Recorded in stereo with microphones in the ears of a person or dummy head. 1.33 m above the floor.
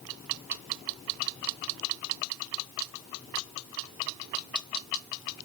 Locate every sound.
Only background noise.